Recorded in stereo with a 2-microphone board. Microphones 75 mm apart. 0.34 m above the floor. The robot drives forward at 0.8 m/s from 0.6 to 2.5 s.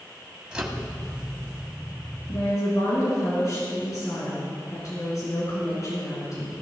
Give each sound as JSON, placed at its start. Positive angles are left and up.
{"t": 0.5, "sound": "a microwave", "side_deg": -10, "distance_m": 1.5}
{"t": 2.3, "sound": "a woman speaking", "side_deg": 50, "distance_m": 4.5}